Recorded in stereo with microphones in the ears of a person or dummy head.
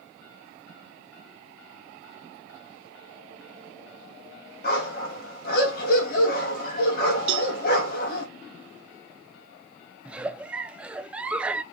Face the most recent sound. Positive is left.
turn(degrees=-5)  # may be behind; listen again after turning